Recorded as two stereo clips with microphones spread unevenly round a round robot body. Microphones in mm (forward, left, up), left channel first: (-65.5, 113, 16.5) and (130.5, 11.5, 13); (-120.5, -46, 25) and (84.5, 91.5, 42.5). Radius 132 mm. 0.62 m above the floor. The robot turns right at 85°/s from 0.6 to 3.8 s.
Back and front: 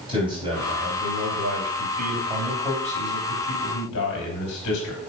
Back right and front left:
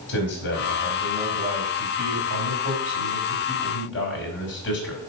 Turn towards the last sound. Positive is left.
turn(degrees=175)